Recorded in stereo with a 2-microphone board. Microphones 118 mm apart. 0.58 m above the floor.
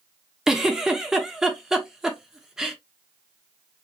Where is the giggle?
5° right (ahead or behind), 1.0 m.